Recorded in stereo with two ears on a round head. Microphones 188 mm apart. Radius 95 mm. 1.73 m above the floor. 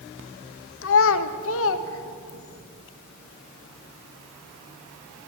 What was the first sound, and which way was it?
A child speaking, 65° left (ahead or behind).